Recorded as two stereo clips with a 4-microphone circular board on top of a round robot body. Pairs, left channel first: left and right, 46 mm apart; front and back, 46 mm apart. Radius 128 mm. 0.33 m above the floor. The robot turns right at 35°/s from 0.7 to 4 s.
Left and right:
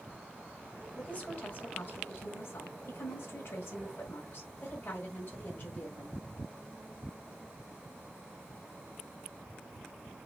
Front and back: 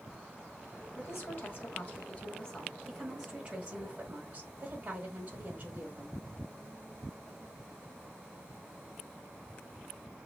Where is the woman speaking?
25° left, 3.5 m; by 6.3 s 130° left, 3.5 m.